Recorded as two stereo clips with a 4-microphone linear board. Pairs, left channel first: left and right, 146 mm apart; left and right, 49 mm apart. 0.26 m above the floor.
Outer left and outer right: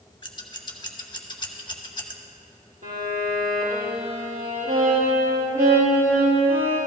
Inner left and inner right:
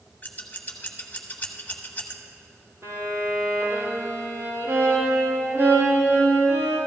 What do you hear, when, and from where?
0.2 s scissors: 35° left (ahead or behind), 1.2 m
2.8 s a violin: 65° right (ahead or behind), 4.5 m